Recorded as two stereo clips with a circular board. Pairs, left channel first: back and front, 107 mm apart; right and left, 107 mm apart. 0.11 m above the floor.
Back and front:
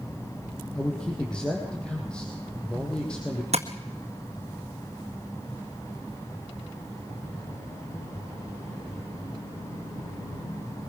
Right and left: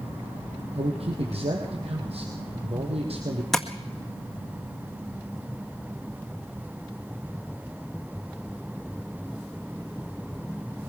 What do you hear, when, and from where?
0.8 s a man speaking: 100° left, 3.5 m
3.5 s tapping: straight ahead, 1.7 m